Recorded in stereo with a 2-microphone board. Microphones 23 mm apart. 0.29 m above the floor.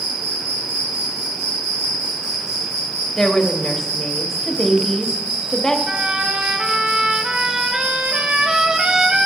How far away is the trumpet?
About 1.2 m.